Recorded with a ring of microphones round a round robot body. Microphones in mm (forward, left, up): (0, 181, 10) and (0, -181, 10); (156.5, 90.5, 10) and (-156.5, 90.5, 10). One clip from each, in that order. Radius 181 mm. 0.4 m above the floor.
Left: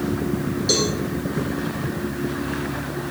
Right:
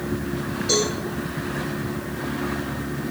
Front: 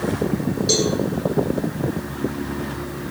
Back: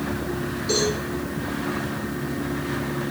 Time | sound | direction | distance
0.7 | a cowbell | 25° left | 6.5 m